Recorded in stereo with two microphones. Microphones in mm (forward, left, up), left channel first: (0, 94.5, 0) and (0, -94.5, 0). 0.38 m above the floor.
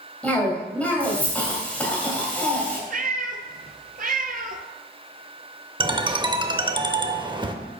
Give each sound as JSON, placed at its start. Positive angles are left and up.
{"t": 0.2, "sound": "a cough", "side_deg": 10, "distance_m": 2.0}
{"t": 2.9, "sound": "a cat meowing", "side_deg": -50, "distance_m": 0.6}
{"t": 5.8, "sound": "a ringtone", "side_deg": -25, "distance_m": 0.6}